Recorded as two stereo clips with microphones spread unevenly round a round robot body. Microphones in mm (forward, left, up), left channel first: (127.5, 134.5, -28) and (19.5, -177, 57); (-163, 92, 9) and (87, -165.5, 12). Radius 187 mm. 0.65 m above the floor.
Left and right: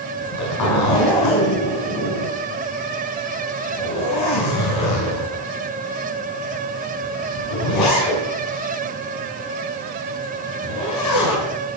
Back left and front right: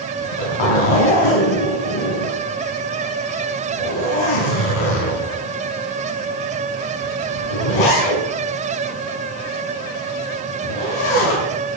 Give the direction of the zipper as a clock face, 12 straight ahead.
8 o'clock.